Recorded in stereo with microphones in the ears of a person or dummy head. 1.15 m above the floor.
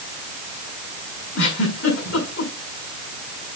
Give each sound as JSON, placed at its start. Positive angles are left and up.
{"t": 1.4, "sound": "a giggle", "side_deg": 85, "distance_m": 6.0}